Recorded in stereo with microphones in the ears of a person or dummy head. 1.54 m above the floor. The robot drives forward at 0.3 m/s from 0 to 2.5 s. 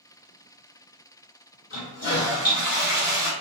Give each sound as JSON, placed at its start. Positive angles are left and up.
{"t": 1.7, "sound": "a toilet flushing", "side_deg": 65, "distance_m": 1.1}